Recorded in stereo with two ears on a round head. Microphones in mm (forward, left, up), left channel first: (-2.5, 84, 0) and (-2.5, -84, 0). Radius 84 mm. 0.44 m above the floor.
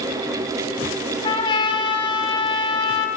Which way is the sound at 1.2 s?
25° left (ahead or behind).